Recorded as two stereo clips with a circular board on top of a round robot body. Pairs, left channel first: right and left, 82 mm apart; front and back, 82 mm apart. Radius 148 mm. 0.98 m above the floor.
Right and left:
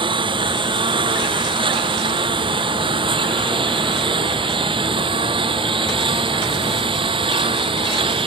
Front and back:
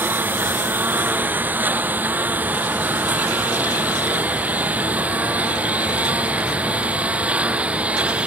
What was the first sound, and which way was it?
A lawn mower, 110° left.